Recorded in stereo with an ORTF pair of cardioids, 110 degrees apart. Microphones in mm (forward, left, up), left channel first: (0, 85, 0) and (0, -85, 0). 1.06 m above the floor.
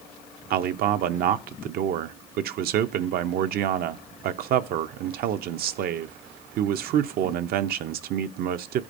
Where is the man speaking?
65° right, 0.6 m.